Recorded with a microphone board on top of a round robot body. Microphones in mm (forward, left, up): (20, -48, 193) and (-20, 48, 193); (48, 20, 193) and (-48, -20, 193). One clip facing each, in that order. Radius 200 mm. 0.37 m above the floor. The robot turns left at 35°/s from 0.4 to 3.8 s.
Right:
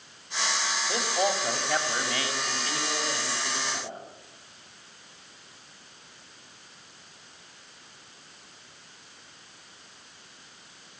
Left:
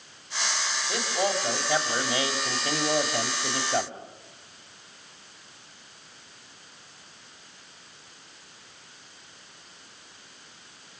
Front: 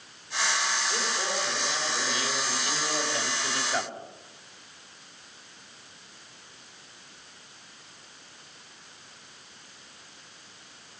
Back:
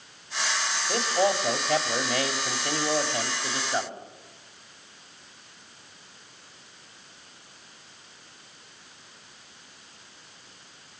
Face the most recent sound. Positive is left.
turn(degrees=120)